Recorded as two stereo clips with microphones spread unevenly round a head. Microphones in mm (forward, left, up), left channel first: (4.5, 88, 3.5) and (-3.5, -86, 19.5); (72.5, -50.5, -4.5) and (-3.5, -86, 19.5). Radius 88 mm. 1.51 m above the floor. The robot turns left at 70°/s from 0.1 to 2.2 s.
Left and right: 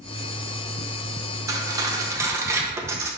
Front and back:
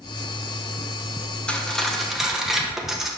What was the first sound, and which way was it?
Cutlery clinking, 75° right.